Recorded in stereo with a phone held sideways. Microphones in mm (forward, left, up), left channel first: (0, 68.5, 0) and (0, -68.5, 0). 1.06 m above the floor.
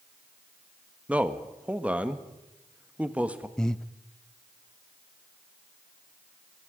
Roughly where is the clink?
I don't hear a clink.